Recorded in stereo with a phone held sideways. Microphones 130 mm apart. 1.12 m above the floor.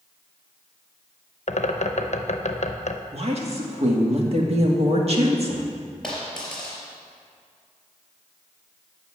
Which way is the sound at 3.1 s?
50° right (ahead or behind).